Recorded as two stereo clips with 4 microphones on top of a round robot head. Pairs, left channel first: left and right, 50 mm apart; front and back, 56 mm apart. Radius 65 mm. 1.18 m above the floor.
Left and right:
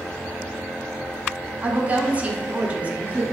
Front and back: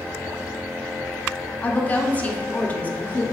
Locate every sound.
1.6 s a woman speaking: 45° right, 0.6 m